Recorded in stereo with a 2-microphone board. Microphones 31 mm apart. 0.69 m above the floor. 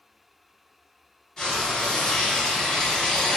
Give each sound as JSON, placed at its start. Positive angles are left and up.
{"t": 1.4, "sound": "frying", "side_deg": 20, "distance_m": 1.9}